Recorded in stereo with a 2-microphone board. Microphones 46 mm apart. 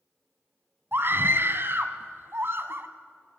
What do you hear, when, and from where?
0.9 s a scream: 55° right (ahead or behind), 1.6 m